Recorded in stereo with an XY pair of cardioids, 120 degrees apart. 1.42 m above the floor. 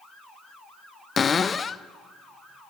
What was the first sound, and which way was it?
A cupboard door, 30° left.